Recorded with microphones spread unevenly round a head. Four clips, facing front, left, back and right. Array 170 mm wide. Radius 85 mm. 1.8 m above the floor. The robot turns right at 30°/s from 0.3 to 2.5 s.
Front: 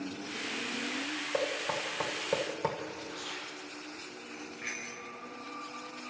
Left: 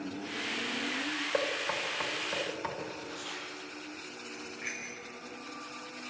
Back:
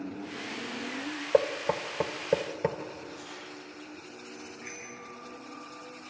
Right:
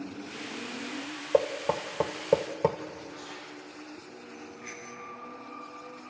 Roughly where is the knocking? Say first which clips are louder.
Right 9 dB, back 8 dB; behind right.